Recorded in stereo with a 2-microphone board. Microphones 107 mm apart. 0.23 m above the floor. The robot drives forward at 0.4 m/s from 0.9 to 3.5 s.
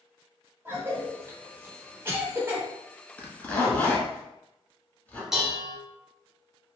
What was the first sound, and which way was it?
A cough, 20° right (ahead or behind).